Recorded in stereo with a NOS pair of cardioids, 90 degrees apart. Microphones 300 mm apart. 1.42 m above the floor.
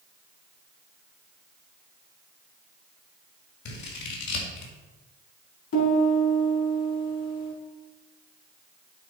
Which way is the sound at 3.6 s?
65° left.